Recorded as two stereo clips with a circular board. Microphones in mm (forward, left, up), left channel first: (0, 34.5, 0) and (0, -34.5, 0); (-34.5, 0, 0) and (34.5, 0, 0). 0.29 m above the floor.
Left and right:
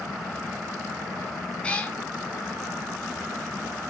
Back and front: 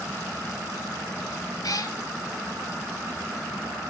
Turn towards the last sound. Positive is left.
turn(degrees=160)